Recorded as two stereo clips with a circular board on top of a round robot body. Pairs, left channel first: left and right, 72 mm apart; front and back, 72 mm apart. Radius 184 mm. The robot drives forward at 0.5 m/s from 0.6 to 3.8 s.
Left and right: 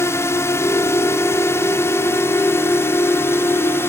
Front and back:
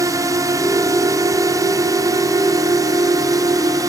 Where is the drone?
140° left; by 3.9 s 145° left.